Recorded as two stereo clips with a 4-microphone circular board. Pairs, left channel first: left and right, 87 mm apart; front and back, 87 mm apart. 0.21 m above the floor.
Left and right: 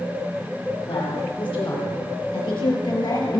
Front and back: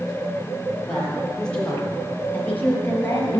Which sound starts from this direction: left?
A woman speaking, at 0.9 s.